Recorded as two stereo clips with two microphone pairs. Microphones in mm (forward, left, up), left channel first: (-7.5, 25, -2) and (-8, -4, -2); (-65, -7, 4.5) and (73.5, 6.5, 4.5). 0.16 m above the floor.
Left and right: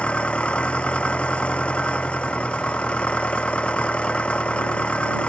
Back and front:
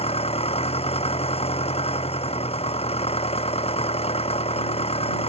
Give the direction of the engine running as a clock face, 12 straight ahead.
7 o'clock.